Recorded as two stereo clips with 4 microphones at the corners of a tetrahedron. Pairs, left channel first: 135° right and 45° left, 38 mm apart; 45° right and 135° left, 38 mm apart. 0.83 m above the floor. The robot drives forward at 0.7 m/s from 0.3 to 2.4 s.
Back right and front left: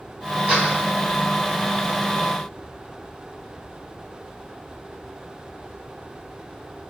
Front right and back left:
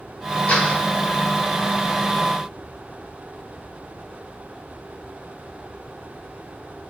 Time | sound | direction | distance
0.5 | a door slam | straight ahead | 3.5 m